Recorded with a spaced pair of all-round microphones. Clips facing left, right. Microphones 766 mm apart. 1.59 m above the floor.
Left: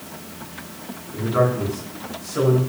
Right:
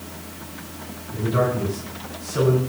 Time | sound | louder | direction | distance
1.1 | a man speaking | left 1 dB | 60° right (ahead or behind) | 8 m